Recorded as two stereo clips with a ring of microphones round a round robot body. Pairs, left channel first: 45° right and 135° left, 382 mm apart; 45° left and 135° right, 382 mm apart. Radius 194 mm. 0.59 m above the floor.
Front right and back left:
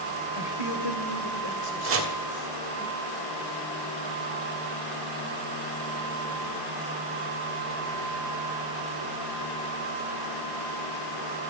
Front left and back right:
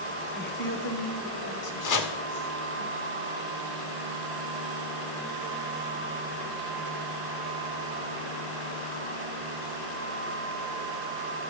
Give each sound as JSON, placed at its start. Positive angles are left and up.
{"t": 0.3, "sound": "a woman speaking", "azimuth_deg": -25, "distance_m": 2.0}
{"t": 1.8, "sound": "chopping", "azimuth_deg": 80, "distance_m": 2.0}